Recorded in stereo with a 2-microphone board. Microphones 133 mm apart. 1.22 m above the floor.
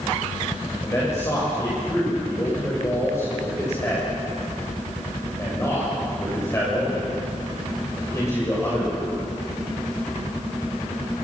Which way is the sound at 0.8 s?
20° left (ahead or behind).